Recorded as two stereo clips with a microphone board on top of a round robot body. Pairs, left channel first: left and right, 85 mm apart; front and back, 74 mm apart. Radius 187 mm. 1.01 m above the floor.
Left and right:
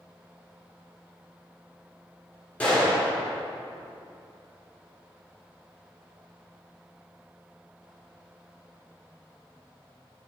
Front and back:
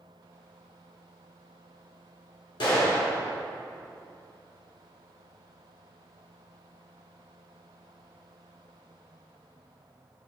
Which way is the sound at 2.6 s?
15° left.